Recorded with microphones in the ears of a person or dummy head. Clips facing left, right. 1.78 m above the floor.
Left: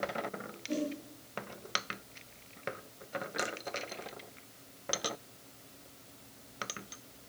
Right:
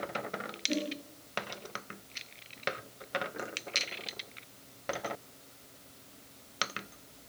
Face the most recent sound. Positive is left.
turn(degrees=-25)  # may be behind; listen again after turning